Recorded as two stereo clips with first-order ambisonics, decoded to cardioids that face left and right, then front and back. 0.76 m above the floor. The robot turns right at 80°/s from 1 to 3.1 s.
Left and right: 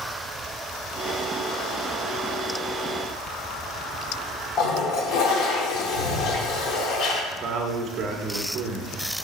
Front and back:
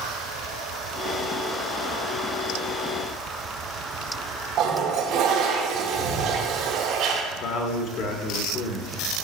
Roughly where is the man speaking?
Ahead right.